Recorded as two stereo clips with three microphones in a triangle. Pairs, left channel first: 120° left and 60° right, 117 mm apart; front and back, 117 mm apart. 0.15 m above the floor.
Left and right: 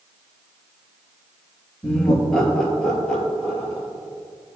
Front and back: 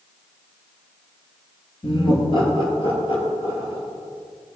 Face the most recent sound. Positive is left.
turn(degrees=35)